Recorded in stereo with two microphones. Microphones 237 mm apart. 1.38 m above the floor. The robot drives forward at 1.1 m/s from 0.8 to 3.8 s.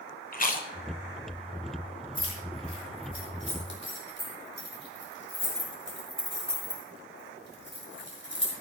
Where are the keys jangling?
70° left (ahead or behind), 4.5 m; by 8.5 s 50° left (ahead or behind), 5 m.